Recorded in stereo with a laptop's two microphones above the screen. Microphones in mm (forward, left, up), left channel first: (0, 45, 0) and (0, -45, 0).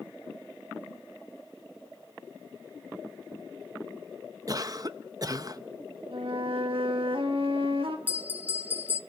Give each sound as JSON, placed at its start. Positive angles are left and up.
{"t": 4.5, "sound": "a cough", "side_deg": -40, "distance_m": 0.9}
{"t": 6.1, "sound": "a flute", "side_deg": -70, "distance_m": 1.6}
{"t": 8.1, "sound": "a bell", "side_deg": -15, "distance_m": 1.0}